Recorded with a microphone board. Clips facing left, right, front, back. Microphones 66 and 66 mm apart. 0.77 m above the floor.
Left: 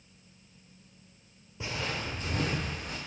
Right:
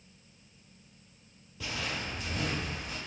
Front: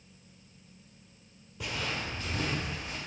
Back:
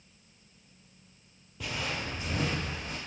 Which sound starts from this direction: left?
Footsteps, at 1.6 s.